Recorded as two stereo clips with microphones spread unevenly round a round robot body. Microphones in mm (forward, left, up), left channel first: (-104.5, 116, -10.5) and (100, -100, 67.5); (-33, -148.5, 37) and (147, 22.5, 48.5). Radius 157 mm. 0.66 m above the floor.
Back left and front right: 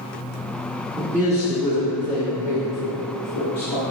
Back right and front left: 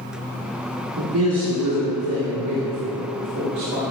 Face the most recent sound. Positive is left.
turn(degrees=90)